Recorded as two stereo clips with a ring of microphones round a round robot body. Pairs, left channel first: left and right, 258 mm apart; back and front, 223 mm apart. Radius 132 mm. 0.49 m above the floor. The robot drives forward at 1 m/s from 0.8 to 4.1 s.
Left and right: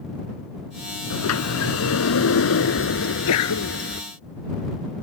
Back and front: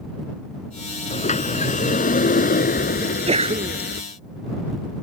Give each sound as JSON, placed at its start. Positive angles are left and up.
{"t": 1.1, "sound": "a sliding door", "azimuth_deg": 120}
{"t": 3.0, "sound": "a sneeze", "azimuth_deg": 60}